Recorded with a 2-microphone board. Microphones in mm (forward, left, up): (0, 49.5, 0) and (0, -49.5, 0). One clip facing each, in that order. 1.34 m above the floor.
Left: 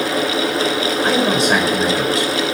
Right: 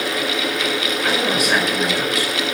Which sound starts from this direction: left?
A man speaking, at 1.0 s.